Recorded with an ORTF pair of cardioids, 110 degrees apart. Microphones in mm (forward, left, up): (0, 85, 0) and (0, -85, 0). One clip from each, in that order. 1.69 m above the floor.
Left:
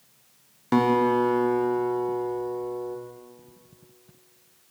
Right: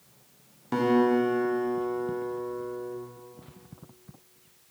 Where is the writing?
I don't hear writing.